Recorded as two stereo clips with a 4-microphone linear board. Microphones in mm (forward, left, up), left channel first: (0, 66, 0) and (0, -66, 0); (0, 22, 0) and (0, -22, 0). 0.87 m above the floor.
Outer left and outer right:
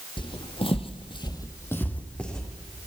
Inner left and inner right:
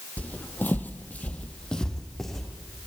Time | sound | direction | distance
0.2 | footsteps | 40° left (ahead or behind) | 1.6 m